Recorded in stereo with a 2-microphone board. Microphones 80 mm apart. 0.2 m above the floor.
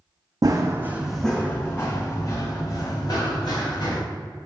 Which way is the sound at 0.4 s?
50° right (ahead or behind).